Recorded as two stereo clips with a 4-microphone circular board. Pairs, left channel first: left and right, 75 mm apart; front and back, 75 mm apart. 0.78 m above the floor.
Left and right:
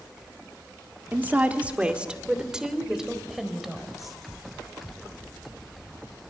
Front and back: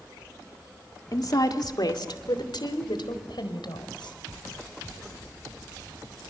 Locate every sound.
1.1 s a woman speaking: 30° right, 1.8 m; by 4.2 s straight ahead, 4.5 m